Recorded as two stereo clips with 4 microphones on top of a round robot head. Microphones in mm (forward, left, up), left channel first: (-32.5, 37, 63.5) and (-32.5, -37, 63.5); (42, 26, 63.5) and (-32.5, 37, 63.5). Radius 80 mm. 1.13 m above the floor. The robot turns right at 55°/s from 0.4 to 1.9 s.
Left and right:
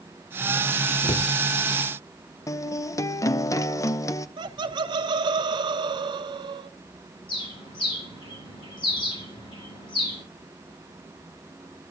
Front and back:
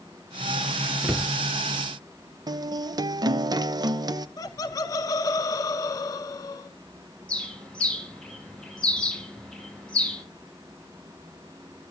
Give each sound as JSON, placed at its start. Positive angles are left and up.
{"t": 1.0, "sound": "a cupboard door", "azimuth_deg": 90, "distance_m": 0.8}
{"t": 2.5, "sound": "a guitar", "azimuth_deg": 135, "distance_m": 0.7}
{"t": 4.4, "sound": "laughter", "azimuth_deg": -60, "distance_m": 1.0}
{"t": 7.3, "sound": "a bird", "azimuth_deg": 70, "distance_m": 6.5}